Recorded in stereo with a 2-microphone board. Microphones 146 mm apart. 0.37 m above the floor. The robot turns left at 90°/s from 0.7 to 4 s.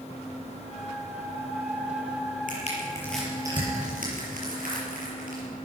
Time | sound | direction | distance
2.5 | crushing | 65° left (ahead or behind) | 6 m